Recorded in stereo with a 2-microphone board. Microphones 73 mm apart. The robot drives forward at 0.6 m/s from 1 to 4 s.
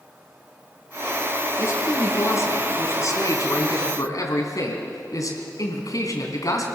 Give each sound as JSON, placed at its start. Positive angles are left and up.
{"t": 1.6, "sound": "a man speaking", "side_deg": 35, "distance_m": 4.0}